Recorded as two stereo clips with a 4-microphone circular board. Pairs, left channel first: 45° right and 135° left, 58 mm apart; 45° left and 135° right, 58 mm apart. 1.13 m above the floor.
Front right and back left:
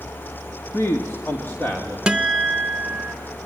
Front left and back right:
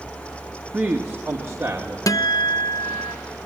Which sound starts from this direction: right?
A man speaking, at 0.7 s.